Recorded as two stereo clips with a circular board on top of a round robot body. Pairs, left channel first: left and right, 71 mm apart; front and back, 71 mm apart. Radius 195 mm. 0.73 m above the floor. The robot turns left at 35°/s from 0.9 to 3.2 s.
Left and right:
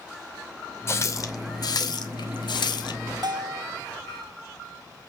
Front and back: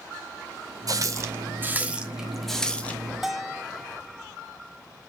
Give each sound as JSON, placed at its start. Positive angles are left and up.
{"t": 0.9, "sound": "a running tap", "azimuth_deg": 145, "distance_m": 1.4}
{"t": 3.2, "sound": "a bell", "azimuth_deg": -90, "distance_m": 1.4}